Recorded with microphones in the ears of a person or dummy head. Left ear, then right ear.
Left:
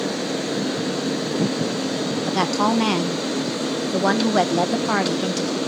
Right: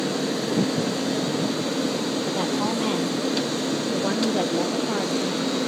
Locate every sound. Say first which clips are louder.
2.3 s a woman speaking: left 8 dB; 60° left (ahead or behind), 0.8 m